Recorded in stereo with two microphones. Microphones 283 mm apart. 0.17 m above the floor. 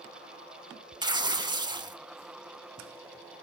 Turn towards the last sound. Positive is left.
turn(degrees=-15)  # may be behind; listen again after turning